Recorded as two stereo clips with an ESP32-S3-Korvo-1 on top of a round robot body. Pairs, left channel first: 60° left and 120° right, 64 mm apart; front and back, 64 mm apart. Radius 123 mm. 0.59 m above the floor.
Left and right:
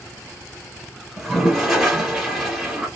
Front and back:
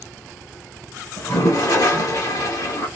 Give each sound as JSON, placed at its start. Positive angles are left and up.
{"t": 1.2, "sound": "a toilet flushing", "azimuth_deg": -30, "distance_m": 1.4}